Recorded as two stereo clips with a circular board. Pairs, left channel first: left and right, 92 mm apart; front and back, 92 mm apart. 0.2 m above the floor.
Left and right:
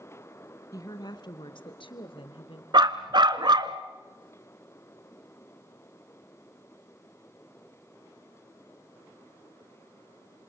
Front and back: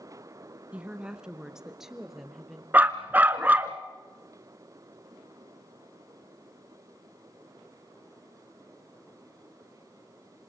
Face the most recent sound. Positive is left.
turn(degrees=-115)